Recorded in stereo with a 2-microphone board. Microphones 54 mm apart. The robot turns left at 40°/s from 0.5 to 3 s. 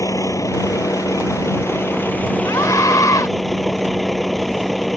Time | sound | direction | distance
0.0 | a vehicle | 105° left | ?
2.4 | a scream | 65° left (ahead or behind) | ?